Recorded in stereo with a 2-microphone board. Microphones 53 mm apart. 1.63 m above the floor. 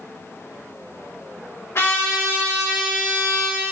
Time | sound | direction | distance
1.8 | a trumpet | 65° left (ahead or behind) | 3.5 m